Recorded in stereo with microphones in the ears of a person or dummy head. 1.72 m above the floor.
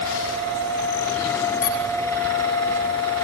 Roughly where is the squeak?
Left.